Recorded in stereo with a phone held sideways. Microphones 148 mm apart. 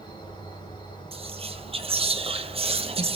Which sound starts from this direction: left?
An insect, at 0.0 s.